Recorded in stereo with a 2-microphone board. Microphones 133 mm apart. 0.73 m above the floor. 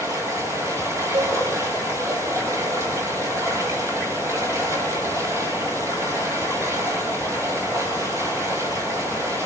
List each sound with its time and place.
0.0 s running water: 25° right (ahead or behind), 4.5 m
1.1 s a cowbell: 45° right (ahead or behind), 4.5 m